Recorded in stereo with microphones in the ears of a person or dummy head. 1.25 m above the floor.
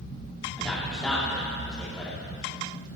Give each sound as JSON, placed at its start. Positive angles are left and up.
{"t": 0.6, "sound": "a man speaking", "side_deg": 0, "distance_m": 2.5}